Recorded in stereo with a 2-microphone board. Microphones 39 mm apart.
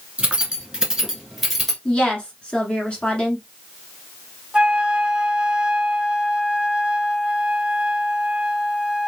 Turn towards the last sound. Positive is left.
turn(degrees=-20)  # may be behind; listen again after turning